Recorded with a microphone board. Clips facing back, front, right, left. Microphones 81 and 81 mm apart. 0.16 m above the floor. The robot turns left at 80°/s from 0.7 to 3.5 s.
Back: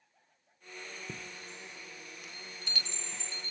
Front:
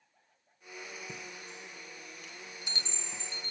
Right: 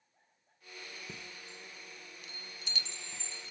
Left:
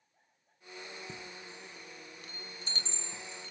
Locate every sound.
1.1 s a chime: 170° right, 1.5 m; by 3.5 s 5° right, 1.5 m